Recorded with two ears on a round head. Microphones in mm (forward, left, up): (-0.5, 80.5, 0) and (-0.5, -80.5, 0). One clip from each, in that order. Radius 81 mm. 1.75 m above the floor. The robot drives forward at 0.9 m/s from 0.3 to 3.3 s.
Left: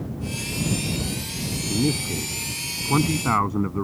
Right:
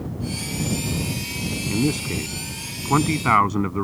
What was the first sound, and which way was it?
A man speaking, 60° right (ahead or behind).